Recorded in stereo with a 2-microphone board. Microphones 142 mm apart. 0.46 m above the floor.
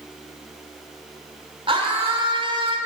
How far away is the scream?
About 1.9 m.